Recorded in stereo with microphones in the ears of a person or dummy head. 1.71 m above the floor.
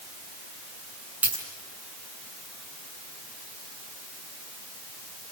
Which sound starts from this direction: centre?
A dropped coin, at 1.2 s.